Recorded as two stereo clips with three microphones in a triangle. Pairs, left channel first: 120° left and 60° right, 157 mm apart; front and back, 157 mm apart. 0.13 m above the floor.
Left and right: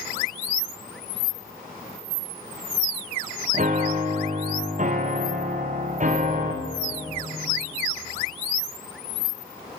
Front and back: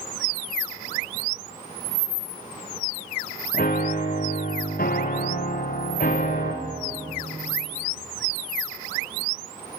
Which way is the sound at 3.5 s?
25° right.